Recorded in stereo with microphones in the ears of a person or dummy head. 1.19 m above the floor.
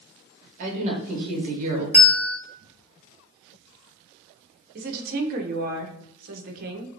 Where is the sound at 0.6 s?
45° right (ahead or behind), 1.1 m.